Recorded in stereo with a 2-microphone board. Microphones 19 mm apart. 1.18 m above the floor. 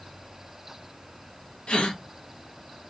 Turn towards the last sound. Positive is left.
turn(degrees=70)  # may be behind; listen again after turning